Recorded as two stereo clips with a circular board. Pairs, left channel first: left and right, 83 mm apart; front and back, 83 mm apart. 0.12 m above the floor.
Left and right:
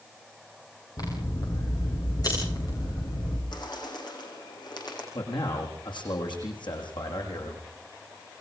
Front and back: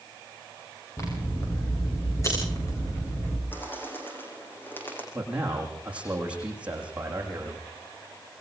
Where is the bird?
65° left, 7 m.